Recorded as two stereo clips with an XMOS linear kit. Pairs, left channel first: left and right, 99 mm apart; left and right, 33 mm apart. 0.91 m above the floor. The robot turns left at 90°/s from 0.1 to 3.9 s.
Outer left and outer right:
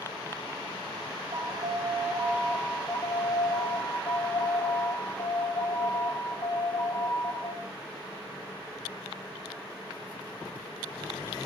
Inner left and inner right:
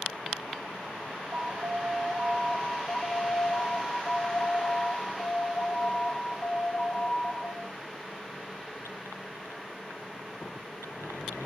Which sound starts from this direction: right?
An alarm, at 1.3 s.